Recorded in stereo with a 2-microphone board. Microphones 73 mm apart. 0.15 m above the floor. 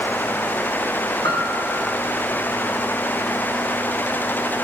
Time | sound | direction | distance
1.2 | a piano | 85° left | 5.5 m